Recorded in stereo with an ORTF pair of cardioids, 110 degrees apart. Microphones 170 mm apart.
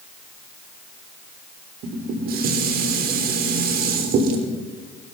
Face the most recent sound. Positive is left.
turn(degrees=-65)